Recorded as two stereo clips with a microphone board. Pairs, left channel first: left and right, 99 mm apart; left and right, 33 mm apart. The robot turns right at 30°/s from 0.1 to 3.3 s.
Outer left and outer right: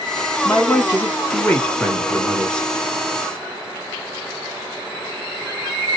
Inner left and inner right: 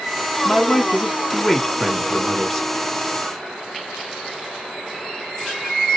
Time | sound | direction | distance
0.5 | a man speaking | 20° left (ahead or behind) | 1.1 m